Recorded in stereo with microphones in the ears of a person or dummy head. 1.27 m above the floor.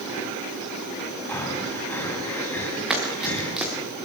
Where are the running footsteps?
Centre (ahead or behind), 6 m.